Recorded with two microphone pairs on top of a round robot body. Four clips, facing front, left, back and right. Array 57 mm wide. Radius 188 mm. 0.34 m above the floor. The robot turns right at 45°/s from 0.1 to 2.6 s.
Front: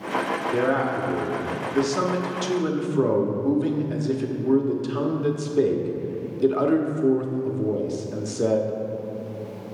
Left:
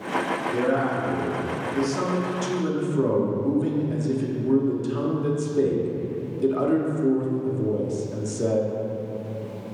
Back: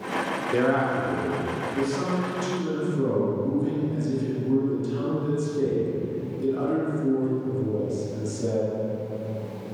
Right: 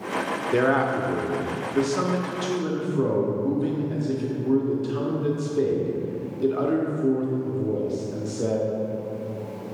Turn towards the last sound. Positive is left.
turn(degrees=0)